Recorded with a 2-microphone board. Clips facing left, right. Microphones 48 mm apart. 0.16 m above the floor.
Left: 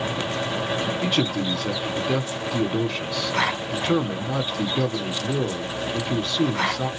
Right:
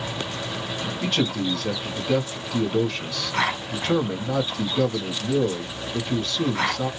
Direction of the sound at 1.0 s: 10° left (ahead or behind).